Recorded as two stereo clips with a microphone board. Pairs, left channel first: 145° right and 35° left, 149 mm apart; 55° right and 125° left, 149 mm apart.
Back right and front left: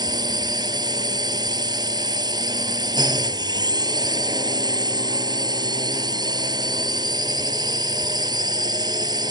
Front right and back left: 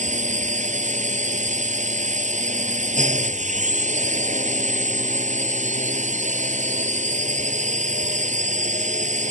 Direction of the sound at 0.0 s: 95° left.